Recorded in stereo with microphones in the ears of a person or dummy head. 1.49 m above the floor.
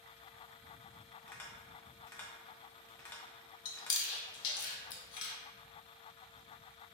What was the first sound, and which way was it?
Tapping, 15° left (ahead or behind).